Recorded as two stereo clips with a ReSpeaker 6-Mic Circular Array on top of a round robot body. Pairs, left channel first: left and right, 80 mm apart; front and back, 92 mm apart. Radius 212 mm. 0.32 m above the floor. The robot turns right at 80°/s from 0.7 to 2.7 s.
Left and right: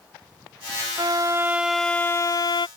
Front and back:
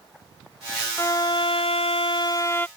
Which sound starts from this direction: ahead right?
A violin, at 1.0 s.